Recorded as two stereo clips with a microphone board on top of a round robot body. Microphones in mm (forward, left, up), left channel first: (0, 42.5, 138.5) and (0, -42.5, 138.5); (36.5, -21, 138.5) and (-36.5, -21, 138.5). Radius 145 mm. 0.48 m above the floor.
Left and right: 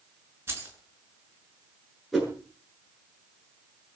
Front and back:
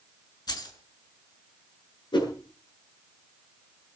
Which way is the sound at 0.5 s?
25° right.